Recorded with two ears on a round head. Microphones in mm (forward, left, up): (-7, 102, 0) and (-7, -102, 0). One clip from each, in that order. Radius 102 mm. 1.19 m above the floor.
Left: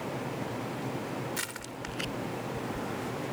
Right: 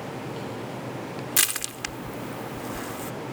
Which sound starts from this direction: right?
Crushing, at 1.4 s.